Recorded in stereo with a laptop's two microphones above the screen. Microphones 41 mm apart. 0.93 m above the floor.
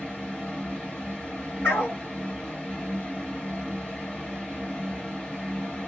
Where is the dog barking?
65° left (ahead or behind), 2 m.